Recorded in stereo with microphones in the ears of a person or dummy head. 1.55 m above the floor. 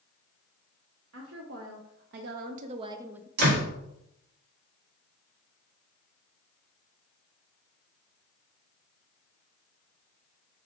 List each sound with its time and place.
1.1 s a woman speaking: 85° right, 1.2 m; by 3.3 s 5° right (ahead or behind), 0.6 m
3.4 s a door slam: 55° right (ahead or behind), 2.5 m